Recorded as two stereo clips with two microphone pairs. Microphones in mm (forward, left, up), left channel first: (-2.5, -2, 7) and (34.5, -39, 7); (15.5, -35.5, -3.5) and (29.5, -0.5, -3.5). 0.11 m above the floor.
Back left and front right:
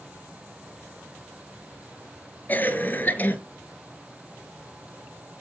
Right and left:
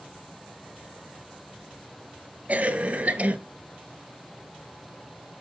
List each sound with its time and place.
2.5 s a cough: 90° left, 1.8 m